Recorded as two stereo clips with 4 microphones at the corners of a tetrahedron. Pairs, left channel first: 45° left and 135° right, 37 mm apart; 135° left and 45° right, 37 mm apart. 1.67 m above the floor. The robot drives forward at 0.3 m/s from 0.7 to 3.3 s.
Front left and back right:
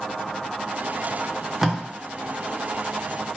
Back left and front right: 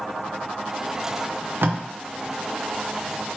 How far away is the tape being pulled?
About 0.6 m.